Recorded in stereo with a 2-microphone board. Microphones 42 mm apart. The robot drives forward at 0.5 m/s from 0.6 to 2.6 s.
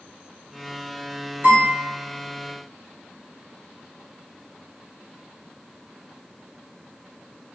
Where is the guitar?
50° right (ahead or behind), 1.7 m.